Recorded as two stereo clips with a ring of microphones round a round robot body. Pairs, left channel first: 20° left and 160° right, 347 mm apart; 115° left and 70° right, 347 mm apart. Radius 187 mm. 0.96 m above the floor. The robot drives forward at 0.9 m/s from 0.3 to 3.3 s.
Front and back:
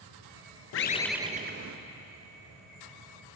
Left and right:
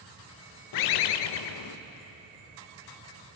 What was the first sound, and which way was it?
A bird, 75° left.